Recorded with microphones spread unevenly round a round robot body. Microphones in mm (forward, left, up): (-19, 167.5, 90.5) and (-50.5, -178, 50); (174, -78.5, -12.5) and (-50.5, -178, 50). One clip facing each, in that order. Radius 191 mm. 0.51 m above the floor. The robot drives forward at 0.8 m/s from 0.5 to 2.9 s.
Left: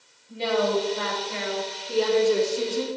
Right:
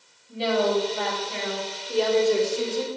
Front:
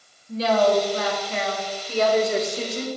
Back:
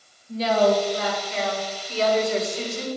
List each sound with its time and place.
0.3 s a woman speaking: 5° left, 3 m; by 2.9 s 20° left, 1.1 m